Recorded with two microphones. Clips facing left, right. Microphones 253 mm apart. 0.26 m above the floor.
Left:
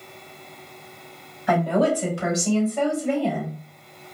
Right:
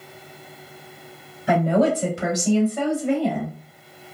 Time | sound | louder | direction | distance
1.5 | a woman speaking | right 2 dB | 30° right (ahead or behind) | 1.6 m